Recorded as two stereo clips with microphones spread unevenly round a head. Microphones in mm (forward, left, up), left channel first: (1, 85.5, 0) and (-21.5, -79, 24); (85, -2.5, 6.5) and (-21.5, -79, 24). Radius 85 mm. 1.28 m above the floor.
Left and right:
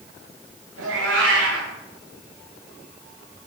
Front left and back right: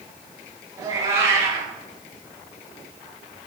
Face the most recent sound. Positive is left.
turn(degrees=-90)